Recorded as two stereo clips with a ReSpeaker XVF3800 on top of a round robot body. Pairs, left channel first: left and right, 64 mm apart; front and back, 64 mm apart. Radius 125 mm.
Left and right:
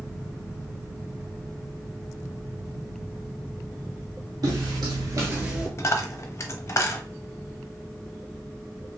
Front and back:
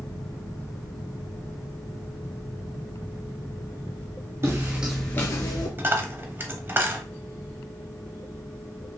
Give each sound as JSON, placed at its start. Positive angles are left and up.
{"t": 4.4, "sound": "footsteps", "azimuth_deg": -130, "distance_m": 0.8}
{"t": 5.8, "sound": "a dropped coin", "azimuth_deg": 130, "distance_m": 0.7}